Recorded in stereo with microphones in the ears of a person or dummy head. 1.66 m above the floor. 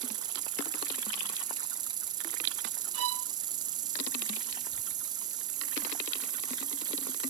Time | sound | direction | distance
0.0 | an insect | 20° right (ahead or behind) | ?
2.9 | a violin | 85° right | ?